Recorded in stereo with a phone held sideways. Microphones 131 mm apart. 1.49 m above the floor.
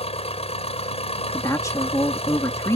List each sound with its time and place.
0.0 s an engine running: 50° left (ahead or behind)
1.3 s a woman speaking: 25° left (ahead or behind)